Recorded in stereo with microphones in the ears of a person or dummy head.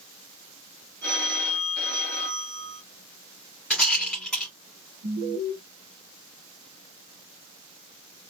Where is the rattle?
Centre (ahead or behind), 1.9 m.